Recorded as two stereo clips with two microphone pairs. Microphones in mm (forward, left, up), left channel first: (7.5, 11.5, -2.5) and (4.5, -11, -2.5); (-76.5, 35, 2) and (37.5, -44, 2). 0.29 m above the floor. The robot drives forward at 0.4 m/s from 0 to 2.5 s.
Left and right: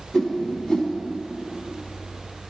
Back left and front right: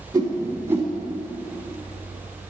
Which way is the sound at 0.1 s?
30° left.